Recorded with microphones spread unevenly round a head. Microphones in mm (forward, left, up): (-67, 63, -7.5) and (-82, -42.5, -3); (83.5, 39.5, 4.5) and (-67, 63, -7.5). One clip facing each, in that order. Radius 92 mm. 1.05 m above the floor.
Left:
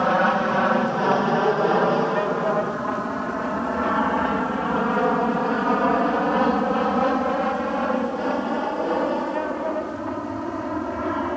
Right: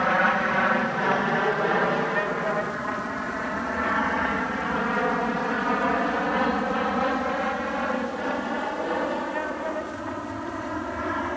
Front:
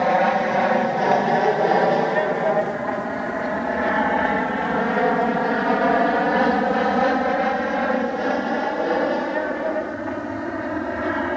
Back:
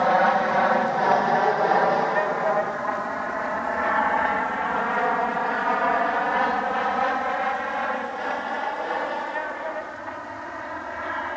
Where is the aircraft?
45° left; by 11.4 s 20° left.